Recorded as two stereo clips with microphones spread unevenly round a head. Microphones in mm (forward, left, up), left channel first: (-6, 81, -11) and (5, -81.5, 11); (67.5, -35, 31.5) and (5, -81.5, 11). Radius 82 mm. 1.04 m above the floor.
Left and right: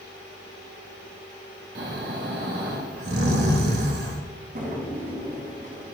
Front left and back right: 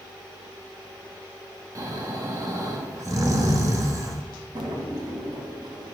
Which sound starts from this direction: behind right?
A drawer, at 4.5 s.